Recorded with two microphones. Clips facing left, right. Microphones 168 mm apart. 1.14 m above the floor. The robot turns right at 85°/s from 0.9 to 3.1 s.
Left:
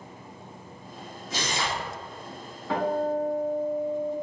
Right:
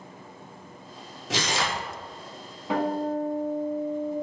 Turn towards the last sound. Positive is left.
turn(degrees=15)